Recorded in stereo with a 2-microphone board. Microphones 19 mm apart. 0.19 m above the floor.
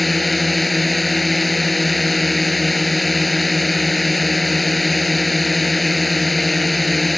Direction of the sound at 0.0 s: 5° left (ahead or behind).